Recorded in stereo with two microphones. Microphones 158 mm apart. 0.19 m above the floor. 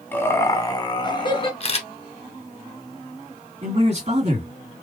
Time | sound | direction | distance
0.1 | laughter | 10° left (ahead or behind) | 1.0 m
1.6 | a camera shutter | 40° left (ahead or behind) | 0.9 m
3.6 | a man speaking | 40° right (ahead or behind) | 3 m